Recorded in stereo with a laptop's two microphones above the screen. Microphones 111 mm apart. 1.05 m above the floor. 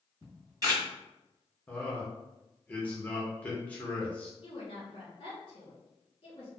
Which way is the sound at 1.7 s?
15° left (ahead or behind).